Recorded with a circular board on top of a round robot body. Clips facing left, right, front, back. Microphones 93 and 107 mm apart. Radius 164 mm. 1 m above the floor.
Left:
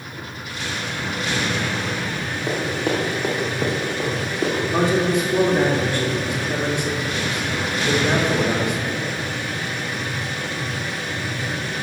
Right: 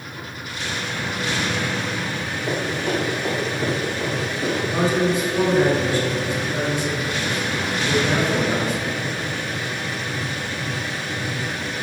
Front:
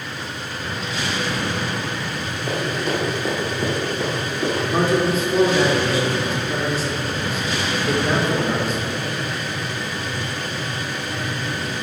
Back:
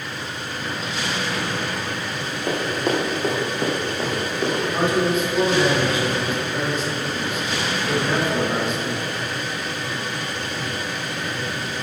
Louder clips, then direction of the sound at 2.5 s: Left 1 dB, back 1 dB; 145° left.